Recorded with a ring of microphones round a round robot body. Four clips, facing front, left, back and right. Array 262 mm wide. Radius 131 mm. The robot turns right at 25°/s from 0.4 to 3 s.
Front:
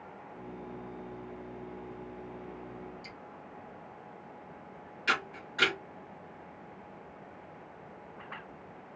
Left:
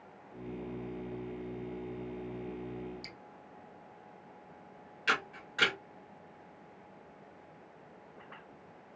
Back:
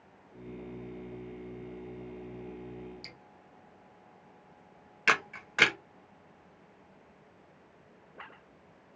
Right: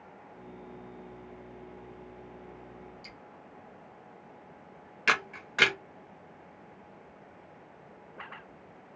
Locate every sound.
3.0 s dripping: 135° left, 0.9 m
5.1 s a camera shutter: 140° right, 0.8 m